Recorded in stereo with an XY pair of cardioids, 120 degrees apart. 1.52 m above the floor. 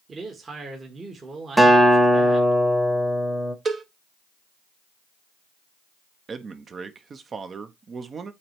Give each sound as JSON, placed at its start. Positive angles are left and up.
{"t": 0.1, "sound": "a man speaking", "azimuth_deg": -30, "distance_m": 1.8}
{"t": 1.6, "sound": "a guitar", "azimuth_deg": -5, "distance_m": 1.3}
{"t": 3.6, "sound": "a cowbell", "azimuth_deg": -35, "distance_m": 1.0}
{"t": 6.3, "sound": "a man speaking", "azimuth_deg": -35, "distance_m": 1.0}